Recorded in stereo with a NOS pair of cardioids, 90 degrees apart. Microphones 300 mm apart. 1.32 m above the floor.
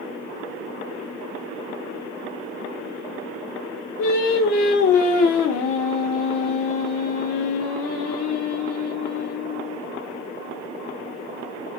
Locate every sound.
4.0 s singing: 70° left, 1.2 m